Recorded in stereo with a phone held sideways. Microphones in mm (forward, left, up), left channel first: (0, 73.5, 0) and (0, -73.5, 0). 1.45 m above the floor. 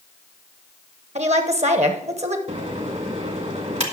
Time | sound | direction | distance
1.1 | a woman speaking | 50° right (ahead or behind) | 1.1 m
2.5 | a microwave | 45° right (ahead or behind) | 1.6 m